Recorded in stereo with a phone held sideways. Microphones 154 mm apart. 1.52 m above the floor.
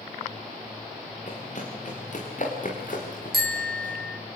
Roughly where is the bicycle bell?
Right.